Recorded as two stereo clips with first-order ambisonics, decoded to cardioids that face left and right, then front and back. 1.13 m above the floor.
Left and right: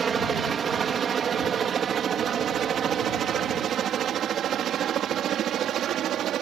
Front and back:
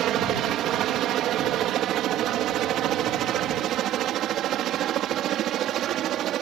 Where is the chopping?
I don't hear chopping.